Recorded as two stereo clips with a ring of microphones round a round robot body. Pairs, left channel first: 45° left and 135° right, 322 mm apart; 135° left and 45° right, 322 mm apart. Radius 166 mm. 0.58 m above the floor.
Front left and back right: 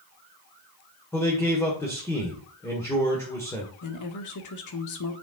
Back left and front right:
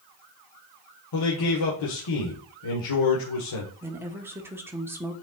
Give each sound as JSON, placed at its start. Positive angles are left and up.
{"t": 1.1, "sound": "a man speaking", "azimuth_deg": 125, "distance_m": 1.7}
{"t": 3.8, "sound": "a woman speaking", "azimuth_deg": 35, "distance_m": 1.4}